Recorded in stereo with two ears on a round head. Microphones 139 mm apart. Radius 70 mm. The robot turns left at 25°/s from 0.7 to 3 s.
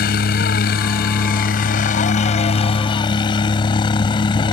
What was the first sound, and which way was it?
A helicopter, 90° left.